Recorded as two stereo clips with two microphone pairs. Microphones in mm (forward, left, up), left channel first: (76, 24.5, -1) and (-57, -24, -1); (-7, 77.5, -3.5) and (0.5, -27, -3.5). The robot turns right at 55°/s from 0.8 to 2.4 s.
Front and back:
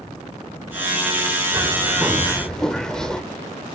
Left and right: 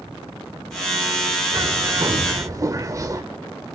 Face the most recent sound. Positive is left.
turn(degrees=-60)